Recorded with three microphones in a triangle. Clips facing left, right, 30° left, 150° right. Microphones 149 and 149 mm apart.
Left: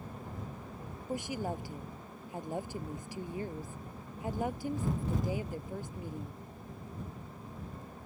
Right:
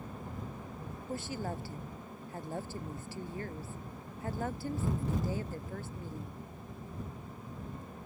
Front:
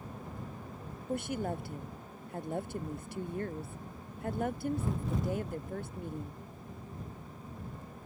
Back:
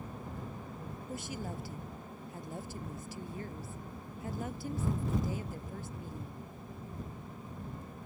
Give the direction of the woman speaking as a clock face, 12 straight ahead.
11 o'clock.